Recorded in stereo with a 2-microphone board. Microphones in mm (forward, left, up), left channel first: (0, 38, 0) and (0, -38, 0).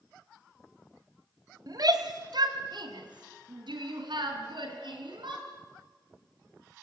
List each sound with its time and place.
1.7 s a shout: 55° right (ahead or behind), 2.5 m; by 5.5 s 80° right, 6 m